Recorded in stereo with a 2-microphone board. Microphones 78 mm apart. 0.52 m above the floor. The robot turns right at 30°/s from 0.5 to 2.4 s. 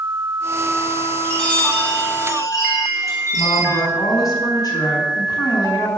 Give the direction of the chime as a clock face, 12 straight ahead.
12 o'clock.